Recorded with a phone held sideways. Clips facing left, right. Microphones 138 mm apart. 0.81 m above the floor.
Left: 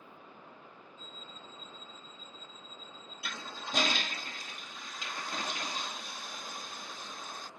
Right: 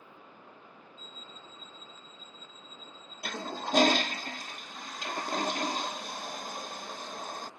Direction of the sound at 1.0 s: 70° left (ahead or behind).